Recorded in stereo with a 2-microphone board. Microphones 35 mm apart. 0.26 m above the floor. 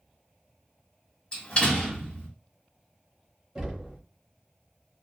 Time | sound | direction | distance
1.3 | a door slam | 30° left (ahead or behind) | 1.3 m
3.5 | knocking | 20° right (ahead or behind) | 1.0 m